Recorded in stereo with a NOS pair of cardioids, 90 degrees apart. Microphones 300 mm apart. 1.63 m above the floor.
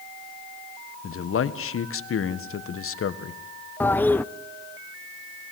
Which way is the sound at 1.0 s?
45° left.